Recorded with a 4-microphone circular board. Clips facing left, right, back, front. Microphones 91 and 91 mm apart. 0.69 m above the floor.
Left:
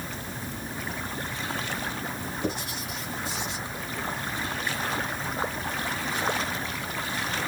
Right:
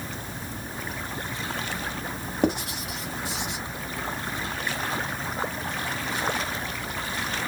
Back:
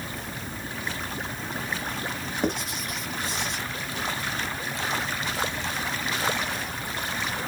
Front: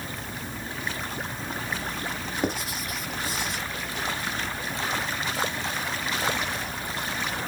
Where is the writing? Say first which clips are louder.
Right 9 dB, back 1 dB; 85° right, 1.1 m.